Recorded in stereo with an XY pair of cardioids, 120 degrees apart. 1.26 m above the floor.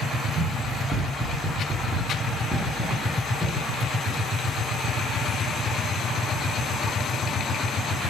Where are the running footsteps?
40° right, 4.5 m; by 4.2 s 5° right, 5.5 m.